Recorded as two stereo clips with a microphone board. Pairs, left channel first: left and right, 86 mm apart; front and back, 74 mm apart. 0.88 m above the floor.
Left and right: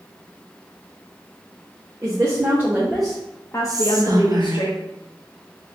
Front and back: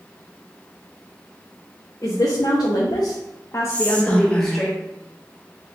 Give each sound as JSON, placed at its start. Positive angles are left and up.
{"t": 2.0, "sound": "a woman speaking", "azimuth_deg": -35, "distance_m": 1.0}
{"t": 3.7, "sound": "whispering", "azimuth_deg": -70, "distance_m": 0.7}